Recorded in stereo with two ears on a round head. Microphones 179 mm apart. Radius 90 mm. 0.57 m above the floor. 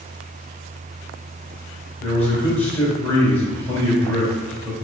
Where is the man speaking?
10° left (ahead or behind), 2 m.